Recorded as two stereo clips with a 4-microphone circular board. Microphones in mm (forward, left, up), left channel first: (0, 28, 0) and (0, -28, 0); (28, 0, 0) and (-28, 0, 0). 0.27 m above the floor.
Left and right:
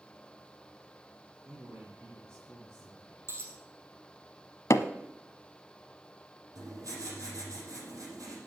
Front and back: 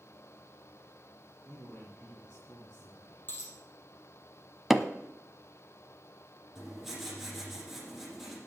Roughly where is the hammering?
Left.